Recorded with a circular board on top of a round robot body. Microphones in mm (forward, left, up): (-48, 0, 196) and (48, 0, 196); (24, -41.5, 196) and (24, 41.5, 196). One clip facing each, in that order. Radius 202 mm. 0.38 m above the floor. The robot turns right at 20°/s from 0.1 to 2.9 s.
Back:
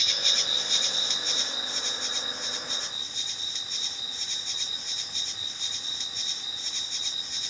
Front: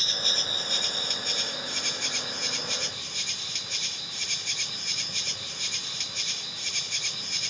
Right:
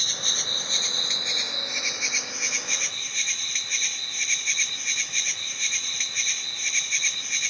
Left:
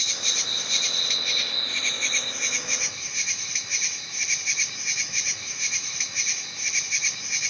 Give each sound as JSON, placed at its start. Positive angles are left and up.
{"t": 0.0, "sound": "an insect", "azimuth_deg": -50}